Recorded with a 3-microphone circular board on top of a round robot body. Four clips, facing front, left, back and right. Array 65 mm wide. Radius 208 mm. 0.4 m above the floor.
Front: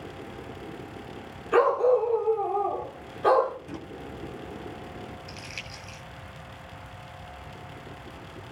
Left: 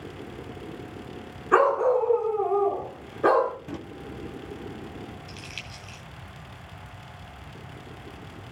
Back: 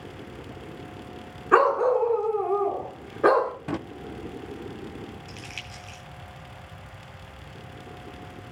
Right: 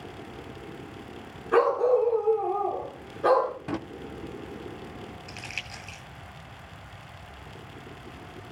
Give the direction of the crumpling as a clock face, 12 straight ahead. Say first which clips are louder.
Right 2 dB, even; 3 o'clock.